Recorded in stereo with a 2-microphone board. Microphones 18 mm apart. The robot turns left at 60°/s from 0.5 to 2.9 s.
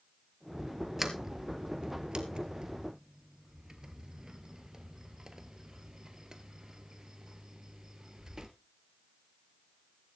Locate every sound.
1.0 s a sliding door: 20° right (ahead or behind), 1.4 m; by 8.5 s 35° right (ahead or behind), 1.4 m